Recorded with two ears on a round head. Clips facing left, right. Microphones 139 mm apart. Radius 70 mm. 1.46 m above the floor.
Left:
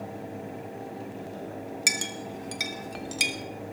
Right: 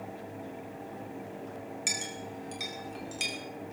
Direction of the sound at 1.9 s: 70° left (ahead or behind).